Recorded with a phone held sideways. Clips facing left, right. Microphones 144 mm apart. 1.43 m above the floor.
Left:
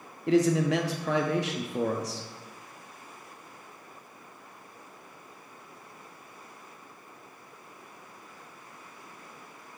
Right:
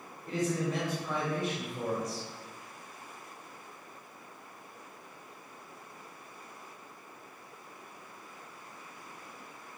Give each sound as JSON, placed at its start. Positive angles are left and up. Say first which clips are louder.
{"t": 0.3, "sound": "a man speaking", "louder": "left 9 dB", "side_deg": 85, "distance_m": 0.5}